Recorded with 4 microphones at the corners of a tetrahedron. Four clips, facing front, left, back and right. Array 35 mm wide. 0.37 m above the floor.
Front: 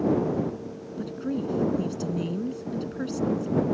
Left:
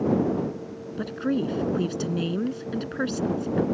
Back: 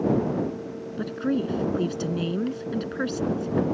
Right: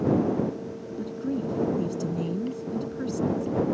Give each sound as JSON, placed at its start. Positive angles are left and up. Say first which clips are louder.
{"t": 1.0, "sound": "a woman speaking", "louder": "left 4 dB, back 4 dB", "azimuth_deg": 125}